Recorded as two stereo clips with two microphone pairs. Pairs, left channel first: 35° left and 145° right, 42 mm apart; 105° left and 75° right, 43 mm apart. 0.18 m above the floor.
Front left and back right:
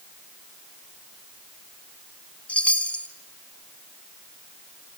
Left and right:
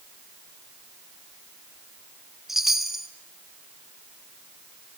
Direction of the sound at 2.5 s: Straight ahead.